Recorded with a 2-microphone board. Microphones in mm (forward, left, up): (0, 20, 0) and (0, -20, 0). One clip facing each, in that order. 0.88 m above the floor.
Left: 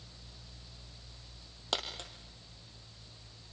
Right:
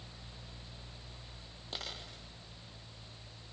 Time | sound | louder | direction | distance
1.7 | a dropped coin | left 7 dB | 75° left (ahead or behind) | 3.5 m